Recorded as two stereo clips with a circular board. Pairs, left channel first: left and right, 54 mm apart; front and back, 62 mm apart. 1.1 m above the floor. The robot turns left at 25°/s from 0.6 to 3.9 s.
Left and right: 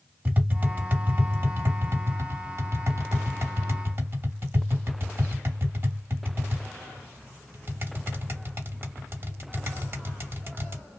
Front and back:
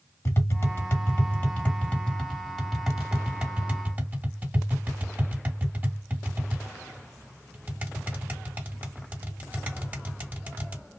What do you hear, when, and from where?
0.2 s tapping: 40° right, 1.1 m; by 10.8 s 120° right, 1.1 m